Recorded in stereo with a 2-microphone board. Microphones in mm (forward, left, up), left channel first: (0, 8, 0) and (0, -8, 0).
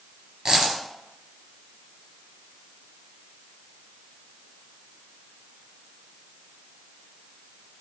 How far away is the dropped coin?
About 3 m.